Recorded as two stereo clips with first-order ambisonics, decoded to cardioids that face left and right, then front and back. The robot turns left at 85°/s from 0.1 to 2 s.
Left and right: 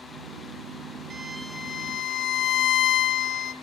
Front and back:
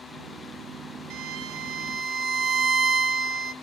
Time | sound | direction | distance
1.1 | a violin | 155° right | 1.1 m